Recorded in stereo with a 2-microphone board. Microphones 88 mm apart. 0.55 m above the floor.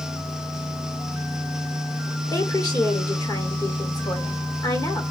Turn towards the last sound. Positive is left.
turn(degrees=45)  # may be behind; listen again after turning